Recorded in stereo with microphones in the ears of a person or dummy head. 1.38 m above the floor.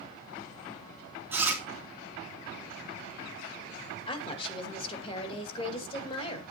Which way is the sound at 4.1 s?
30° left (ahead or behind).